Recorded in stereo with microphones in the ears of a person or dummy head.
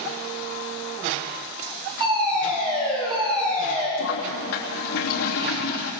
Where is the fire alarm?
20° right (ahead or behind), 10 m.